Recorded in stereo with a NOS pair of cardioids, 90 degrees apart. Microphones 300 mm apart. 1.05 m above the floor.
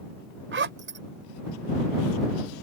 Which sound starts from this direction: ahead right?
A zipper, at 0.5 s.